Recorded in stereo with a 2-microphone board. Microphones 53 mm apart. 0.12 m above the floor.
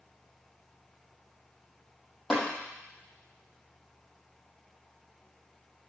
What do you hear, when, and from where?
2.3 s tapping: 10° left (ahead or behind), 5 m